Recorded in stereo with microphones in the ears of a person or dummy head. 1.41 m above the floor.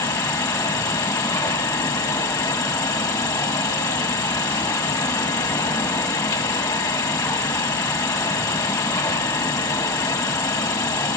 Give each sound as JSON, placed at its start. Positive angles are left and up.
{"t": 0.0, "sound": "an insect", "side_deg": 15, "distance_m": 1.3}